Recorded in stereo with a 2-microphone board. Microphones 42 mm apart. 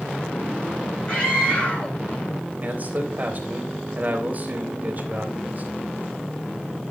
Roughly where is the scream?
Left.